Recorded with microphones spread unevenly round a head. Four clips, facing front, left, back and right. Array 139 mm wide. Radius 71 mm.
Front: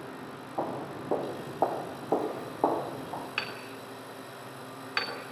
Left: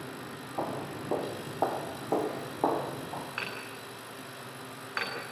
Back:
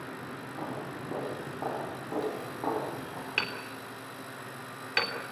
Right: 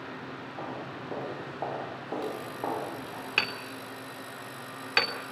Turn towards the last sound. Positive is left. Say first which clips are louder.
# right 4 dB, back 1 dB
turn(degrees=-105)